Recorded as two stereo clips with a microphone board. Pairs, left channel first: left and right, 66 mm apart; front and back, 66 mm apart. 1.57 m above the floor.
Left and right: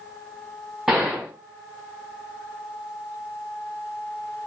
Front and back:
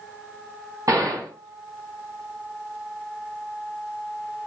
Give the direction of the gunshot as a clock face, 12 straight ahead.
6 o'clock.